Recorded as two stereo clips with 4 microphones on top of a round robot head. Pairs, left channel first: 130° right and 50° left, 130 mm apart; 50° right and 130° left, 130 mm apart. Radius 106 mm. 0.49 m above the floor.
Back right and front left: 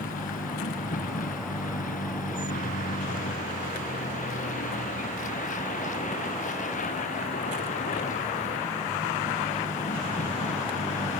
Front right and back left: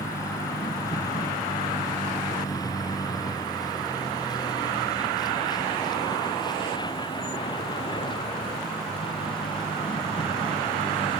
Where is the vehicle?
115° right; by 11.2 s 100° right.